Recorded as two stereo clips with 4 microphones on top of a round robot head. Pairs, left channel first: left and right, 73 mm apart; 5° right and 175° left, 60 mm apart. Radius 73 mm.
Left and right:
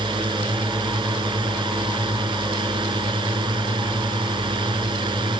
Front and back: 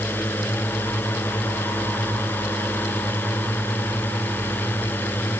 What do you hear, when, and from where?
0.0 s a drone: 70° right